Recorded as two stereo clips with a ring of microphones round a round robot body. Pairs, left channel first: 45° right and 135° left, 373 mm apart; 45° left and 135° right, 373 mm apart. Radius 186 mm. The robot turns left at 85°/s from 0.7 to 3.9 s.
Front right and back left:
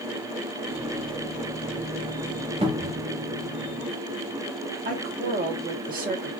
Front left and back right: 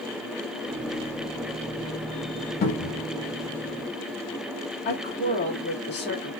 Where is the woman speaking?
85° left, 1.2 m.